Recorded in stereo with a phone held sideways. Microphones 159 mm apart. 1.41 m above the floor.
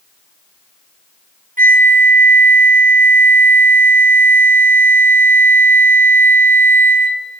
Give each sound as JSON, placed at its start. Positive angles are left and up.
{"t": 1.6, "sound": "a flute", "side_deg": -60, "distance_m": 0.9}